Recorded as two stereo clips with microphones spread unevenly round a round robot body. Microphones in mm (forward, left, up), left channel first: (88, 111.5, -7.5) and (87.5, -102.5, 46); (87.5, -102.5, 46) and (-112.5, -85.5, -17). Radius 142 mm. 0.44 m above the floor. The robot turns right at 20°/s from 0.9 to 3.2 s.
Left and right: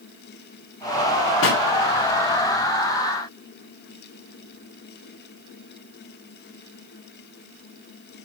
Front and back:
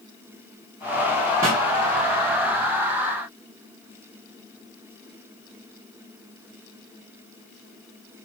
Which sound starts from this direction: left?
A pop, at 1.4 s.